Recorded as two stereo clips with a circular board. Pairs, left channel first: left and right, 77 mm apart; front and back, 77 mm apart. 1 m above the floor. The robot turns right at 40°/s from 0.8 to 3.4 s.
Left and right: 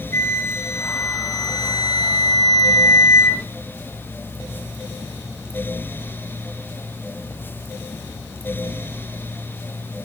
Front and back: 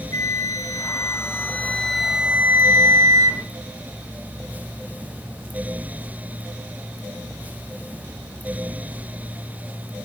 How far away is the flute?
About 2.5 m.